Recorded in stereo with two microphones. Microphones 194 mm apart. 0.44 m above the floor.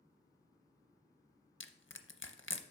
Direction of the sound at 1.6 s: 85° left.